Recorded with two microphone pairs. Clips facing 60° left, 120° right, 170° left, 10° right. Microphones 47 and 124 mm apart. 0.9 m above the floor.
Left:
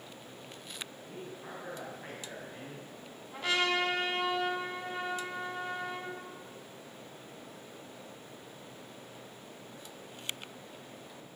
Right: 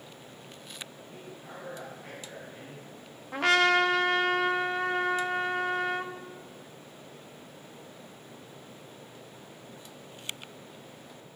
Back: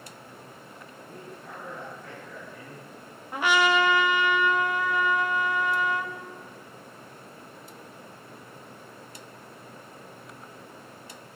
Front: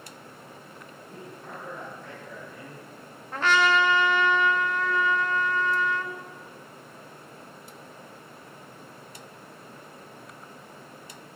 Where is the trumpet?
115° right, 1.0 m.